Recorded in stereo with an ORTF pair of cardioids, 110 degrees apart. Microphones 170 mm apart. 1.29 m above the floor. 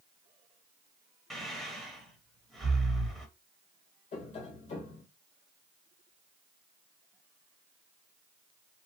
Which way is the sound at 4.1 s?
50° left.